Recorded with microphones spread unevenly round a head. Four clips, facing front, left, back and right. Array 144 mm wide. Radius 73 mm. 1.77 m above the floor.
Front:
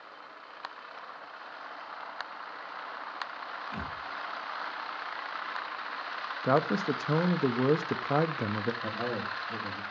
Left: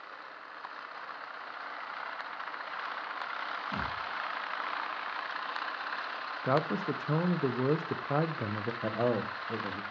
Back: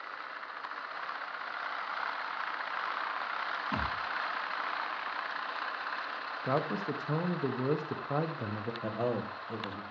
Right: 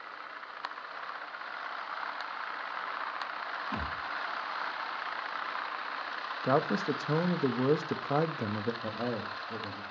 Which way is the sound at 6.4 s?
15° left.